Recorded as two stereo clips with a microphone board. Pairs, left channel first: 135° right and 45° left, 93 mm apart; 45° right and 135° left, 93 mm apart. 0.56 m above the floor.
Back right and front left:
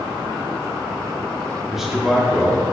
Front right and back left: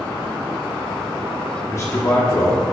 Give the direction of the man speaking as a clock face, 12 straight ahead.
1 o'clock.